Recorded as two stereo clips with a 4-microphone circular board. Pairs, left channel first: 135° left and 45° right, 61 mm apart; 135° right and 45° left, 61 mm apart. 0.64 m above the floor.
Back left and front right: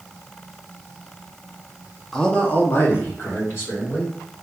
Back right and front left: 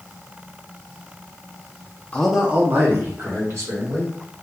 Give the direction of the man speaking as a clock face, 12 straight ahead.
5 o'clock.